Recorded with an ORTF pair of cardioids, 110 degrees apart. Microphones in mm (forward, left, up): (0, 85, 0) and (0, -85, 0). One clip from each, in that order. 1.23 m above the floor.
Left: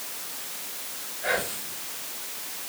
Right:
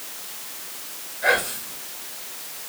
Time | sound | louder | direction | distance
1.2 | whispering | right 7 dB | 50° right | 4.5 m